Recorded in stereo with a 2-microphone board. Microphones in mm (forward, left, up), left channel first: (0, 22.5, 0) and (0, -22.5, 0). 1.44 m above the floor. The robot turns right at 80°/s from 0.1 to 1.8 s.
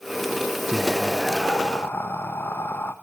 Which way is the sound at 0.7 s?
20° right.